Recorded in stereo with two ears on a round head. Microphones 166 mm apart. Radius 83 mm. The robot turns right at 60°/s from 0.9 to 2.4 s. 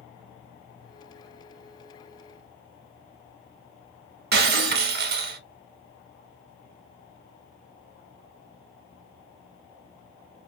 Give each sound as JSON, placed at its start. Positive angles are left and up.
{"t": 4.3, "sound": "breaking glass", "side_deg": -55, "distance_m": 0.7}